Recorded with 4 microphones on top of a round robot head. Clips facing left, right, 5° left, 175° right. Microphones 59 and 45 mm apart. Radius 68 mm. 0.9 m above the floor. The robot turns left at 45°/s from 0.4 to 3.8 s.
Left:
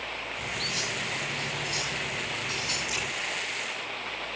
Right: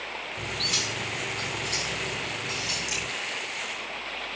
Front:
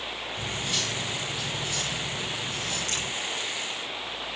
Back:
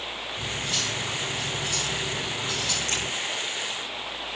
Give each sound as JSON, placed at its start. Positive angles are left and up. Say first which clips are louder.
{"t": 0.4, "sound": "cutlery clinking", "louder": "right 2 dB, back 1 dB", "azimuth_deg": -60, "distance_m": 4.5}
{"t": 2.9, "sound": "a crack", "louder": "even, back 3 dB", "azimuth_deg": -120, "distance_m": 8.5}